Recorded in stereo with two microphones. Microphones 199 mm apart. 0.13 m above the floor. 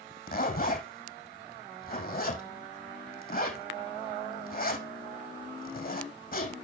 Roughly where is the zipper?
Left.